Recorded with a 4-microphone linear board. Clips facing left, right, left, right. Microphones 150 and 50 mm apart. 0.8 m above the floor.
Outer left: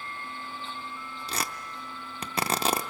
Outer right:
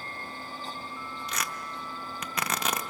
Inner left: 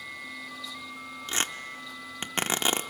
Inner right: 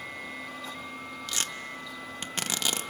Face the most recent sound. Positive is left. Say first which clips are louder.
# outer left 3 dB, inner left 4 dB
turn(degrees=30)  # may be behind; listen again after turning